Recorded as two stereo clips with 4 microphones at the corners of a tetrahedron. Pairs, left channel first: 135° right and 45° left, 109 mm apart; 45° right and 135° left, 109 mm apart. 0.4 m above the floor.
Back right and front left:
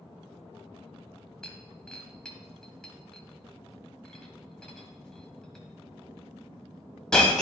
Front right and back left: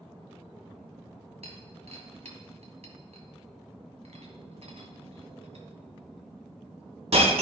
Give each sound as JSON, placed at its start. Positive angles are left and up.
{"t": 1.4, "sound": "breaking glass", "azimuth_deg": 140, "distance_m": 1.5}